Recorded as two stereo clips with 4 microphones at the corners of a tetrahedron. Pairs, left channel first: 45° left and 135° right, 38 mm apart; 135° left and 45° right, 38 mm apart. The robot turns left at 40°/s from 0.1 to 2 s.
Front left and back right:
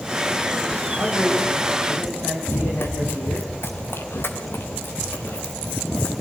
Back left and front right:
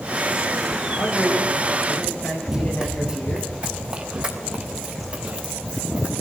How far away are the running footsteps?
About 1.7 m.